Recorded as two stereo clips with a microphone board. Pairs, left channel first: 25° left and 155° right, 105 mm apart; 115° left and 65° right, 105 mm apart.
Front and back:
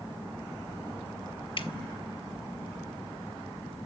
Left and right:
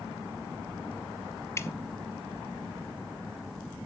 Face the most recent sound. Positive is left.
turn(degrees=50)